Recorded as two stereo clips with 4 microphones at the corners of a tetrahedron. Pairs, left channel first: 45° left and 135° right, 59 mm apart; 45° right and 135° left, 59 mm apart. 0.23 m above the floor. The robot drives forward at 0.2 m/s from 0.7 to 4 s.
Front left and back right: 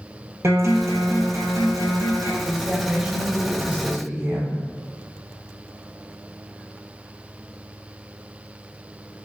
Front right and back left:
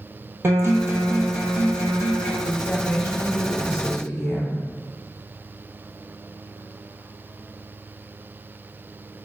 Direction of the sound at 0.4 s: 175° right.